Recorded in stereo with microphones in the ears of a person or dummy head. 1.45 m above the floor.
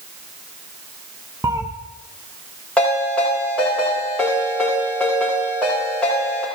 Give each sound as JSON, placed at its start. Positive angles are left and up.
{"t": 1.4, "sound": "a cat meowing", "side_deg": -20, "distance_m": 0.6}
{"t": 2.8, "sound": "a ringtone", "side_deg": 5, "distance_m": 4.5}